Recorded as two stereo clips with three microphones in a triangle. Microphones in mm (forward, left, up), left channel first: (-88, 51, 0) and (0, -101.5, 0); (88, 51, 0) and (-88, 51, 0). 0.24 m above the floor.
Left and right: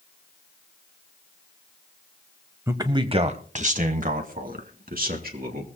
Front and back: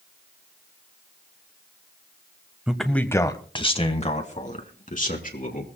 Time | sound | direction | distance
2.7 | a man speaking | 105° right | 1.0 m